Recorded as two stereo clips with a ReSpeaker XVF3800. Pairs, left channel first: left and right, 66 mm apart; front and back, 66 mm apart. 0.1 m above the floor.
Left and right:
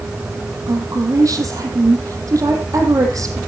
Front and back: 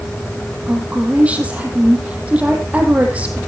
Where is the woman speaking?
110° right, 4.5 m.